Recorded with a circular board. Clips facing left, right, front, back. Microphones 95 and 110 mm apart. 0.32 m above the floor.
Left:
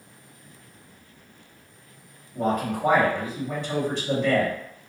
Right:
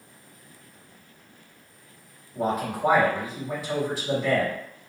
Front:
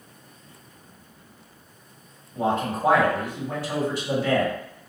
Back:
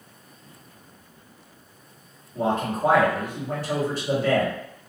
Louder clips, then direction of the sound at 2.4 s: Left 1 dB, even; 170° right.